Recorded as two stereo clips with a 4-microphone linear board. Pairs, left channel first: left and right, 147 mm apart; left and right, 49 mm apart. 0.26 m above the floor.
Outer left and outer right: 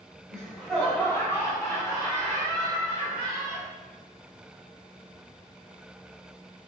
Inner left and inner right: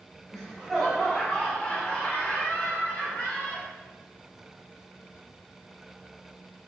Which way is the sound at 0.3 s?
5° right (ahead or behind).